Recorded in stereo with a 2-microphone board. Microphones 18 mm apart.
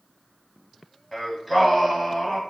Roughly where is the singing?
Centre.